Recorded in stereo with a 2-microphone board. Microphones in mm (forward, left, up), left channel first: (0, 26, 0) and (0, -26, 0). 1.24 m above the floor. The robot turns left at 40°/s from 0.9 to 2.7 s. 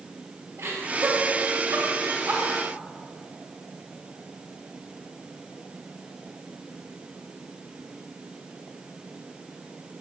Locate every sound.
0.6 s laughter: 65° right (ahead or behind), 2.5 m; by 2.4 s 55° right (ahead or behind), 2.5 m